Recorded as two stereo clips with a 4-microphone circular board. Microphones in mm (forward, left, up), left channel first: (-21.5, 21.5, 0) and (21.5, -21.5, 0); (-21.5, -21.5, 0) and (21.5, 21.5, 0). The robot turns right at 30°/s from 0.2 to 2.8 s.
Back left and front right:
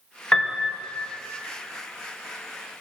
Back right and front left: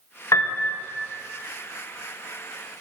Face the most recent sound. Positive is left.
turn(degrees=-70)